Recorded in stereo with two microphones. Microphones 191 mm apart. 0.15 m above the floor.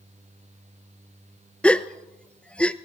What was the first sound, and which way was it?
A gasp, 5° left (ahead or behind).